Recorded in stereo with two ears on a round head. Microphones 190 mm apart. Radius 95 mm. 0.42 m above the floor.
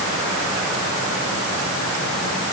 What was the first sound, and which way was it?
Only background noise.